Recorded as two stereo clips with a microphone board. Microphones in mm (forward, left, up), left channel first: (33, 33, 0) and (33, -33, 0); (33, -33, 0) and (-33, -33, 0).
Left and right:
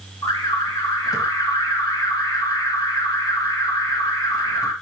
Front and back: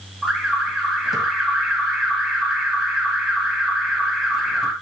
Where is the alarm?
90° left, 3 m.